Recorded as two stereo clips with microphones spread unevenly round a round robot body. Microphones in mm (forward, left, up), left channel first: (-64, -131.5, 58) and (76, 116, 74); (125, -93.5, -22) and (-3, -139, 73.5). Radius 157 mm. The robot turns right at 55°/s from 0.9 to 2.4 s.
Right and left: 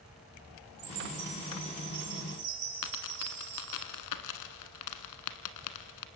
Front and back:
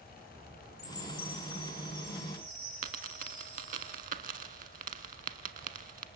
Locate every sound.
0.8 s a chime: 20° left, 7.5 m; by 3.8 s 100° left, 7.5 m
2.8 s a dropped coin: 145° right, 1.4 m